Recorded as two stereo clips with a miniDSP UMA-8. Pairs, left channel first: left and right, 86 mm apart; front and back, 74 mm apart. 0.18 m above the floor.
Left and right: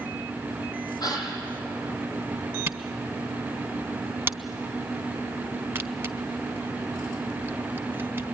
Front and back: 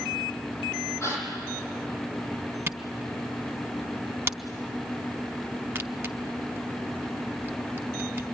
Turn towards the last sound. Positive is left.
turn(degrees=-140)